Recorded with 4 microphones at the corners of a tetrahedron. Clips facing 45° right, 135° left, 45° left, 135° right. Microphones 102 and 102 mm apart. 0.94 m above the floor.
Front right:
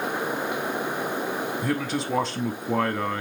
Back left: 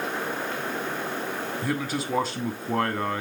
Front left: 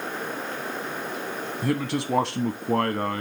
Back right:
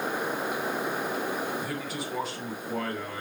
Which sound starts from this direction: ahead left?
A man speaking, at 1.6 s.